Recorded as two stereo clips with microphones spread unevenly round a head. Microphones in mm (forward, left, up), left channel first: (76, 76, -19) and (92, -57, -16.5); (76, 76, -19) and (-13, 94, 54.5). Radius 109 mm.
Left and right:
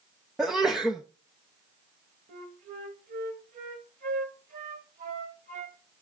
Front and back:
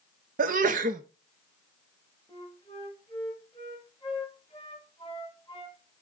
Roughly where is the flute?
Right.